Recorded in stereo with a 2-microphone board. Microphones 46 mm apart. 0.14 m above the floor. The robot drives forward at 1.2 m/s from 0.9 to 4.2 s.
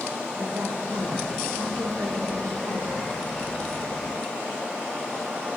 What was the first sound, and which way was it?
A woman speaking, 50° right (ahead or behind).